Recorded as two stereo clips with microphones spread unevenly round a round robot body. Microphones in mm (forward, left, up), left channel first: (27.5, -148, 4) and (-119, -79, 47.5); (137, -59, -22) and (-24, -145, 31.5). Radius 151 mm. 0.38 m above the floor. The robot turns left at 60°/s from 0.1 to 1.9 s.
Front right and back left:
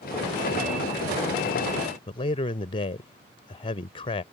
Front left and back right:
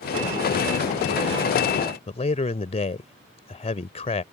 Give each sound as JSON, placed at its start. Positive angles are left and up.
{"t": 2.1, "sound": "a man speaking", "azimuth_deg": 5}